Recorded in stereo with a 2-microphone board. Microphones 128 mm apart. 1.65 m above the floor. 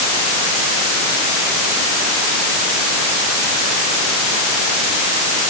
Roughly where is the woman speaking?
I don't hear a woman speaking.